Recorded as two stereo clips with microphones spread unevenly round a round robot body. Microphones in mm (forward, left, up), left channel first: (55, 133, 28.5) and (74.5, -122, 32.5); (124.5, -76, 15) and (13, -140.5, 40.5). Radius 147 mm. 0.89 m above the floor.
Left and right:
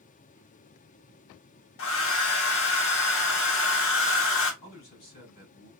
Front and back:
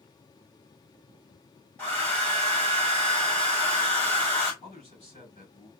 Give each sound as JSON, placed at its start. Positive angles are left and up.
{"t": 1.8, "sound": "a hair dryer", "azimuth_deg": 100, "distance_m": 1.4}
{"t": 4.6, "sound": "a man speaking", "azimuth_deg": 80, "distance_m": 4.5}